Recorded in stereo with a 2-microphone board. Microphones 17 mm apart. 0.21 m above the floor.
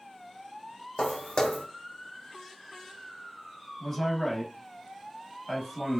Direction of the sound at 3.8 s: 15° left (ahead or behind).